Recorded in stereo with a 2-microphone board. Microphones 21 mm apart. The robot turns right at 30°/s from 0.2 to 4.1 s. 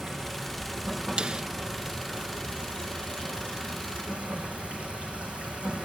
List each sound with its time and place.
0.0 s running water: 170° left, 3.5 m; by 5.9 s 75° right, 3.5 m
1.2 s a snare drum: 45° right (ahead or behind), 0.6 m; by 1.4 s 55° right (ahead or behind), 0.6 m